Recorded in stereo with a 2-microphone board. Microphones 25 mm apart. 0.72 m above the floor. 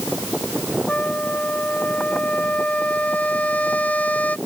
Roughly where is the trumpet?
Left.